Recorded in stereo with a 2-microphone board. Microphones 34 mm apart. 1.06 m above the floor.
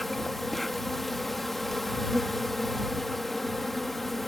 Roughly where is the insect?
Centre.